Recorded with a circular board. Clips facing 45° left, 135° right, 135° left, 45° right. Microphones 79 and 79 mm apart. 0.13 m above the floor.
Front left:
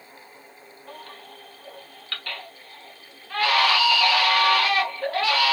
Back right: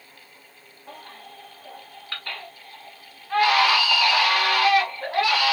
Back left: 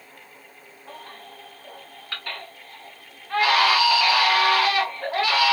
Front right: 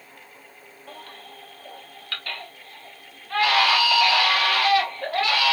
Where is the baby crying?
Straight behind, 1.1 m.